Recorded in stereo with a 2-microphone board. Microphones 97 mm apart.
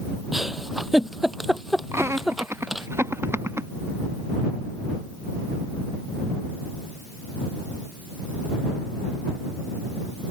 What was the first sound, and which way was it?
A giggle, centre (ahead or behind).